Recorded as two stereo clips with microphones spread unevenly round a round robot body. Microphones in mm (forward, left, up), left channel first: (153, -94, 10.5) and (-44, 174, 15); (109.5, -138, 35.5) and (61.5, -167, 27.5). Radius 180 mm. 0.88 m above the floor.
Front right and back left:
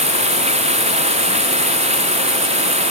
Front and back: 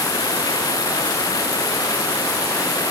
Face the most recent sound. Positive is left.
turn(degrees=55)